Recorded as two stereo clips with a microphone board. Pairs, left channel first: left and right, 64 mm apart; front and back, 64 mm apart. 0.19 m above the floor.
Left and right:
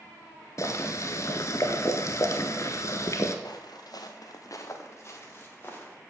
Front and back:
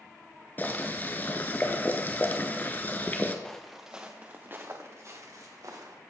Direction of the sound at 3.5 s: 80° left.